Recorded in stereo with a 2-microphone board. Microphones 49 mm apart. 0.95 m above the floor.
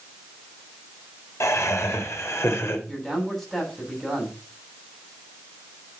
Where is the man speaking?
5° left (ahead or behind), 7 m.